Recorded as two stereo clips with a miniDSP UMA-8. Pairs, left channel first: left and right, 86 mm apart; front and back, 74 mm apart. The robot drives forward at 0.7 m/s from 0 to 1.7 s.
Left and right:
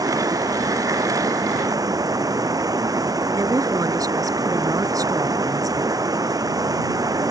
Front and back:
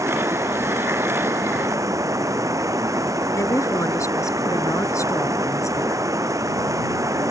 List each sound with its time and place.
0.0 s running water: 130° right; by 7.3 s 135° right
3.4 s a woman speaking: 45° right